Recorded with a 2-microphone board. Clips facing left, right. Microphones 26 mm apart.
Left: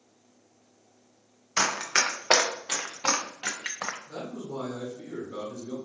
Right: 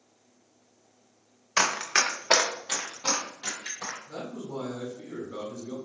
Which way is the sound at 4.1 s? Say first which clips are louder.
Even; 5° right (ahead or behind).